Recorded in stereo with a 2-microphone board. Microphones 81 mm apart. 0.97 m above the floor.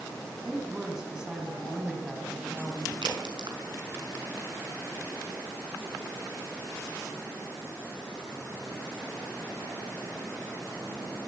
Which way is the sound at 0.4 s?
10° right (ahead or behind).